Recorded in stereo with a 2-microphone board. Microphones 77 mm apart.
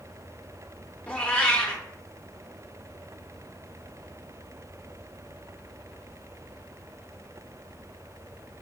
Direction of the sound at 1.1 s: 15° left (ahead or behind).